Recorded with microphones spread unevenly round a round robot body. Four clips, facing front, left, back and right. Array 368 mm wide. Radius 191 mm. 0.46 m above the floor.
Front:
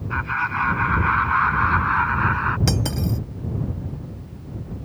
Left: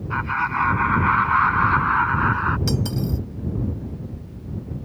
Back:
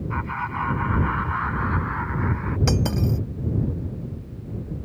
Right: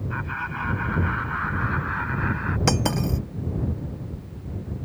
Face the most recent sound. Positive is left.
turn(degrees=-80)